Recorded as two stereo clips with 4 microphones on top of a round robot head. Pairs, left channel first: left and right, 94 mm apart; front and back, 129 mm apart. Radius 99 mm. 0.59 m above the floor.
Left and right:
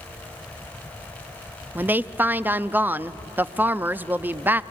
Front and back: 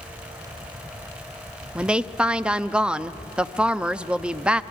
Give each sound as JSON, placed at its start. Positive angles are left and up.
{"t": 1.8, "sound": "a woman speaking", "azimuth_deg": -115, "distance_m": 0.6}